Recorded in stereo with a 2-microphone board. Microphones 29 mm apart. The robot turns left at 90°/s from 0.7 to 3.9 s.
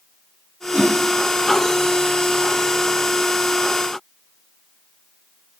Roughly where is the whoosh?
Right.